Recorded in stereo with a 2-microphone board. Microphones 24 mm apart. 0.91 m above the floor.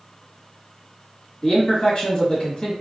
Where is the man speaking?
40° left (ahead or behind), 1.6 m.